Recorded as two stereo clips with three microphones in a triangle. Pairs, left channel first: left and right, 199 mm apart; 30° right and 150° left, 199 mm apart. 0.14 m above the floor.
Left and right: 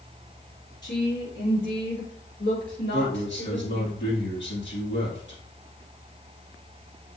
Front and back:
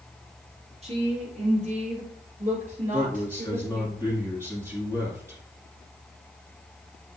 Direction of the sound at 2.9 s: 75° left.